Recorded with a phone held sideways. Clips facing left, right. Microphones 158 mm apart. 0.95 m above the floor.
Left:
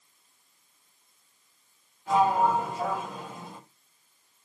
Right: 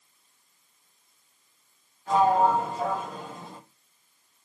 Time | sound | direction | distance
2.1 | a sliding door | 10° left (ahead or behind) | 3.5 m